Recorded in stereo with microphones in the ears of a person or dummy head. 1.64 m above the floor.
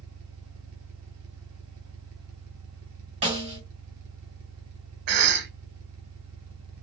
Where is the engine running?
75° right (ahead or behind), 0.7 m.